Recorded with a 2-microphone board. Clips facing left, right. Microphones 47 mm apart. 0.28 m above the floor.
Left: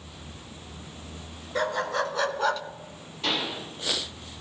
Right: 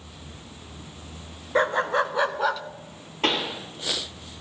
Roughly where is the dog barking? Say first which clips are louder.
Right 5 dB; right.